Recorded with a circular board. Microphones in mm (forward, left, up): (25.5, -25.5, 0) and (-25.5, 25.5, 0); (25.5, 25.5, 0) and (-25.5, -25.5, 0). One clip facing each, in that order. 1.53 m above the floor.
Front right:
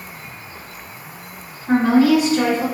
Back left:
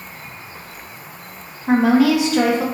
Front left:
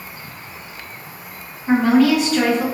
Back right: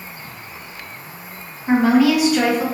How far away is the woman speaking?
About 0.9 m.